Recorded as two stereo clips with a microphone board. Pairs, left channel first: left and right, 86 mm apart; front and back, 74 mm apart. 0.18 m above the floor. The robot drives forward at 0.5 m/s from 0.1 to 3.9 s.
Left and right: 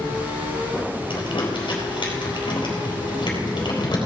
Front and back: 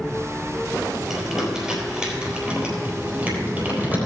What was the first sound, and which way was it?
Crumpling, 95° left.